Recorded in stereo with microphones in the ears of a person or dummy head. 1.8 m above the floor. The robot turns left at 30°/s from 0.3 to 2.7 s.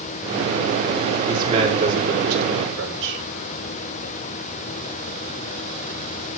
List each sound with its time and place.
1.3 s a man speaking: 30° right, 5 m; by 3.2 s 70° right, 5 m